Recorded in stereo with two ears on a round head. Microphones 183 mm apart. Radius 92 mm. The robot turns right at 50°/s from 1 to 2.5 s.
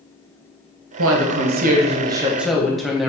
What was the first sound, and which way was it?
A woman speaking, 75° right.